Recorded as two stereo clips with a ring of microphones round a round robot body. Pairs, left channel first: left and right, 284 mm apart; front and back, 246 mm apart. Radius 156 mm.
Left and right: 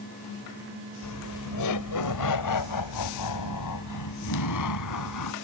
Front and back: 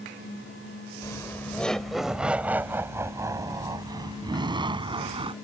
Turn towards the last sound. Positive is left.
turn(degrees=110)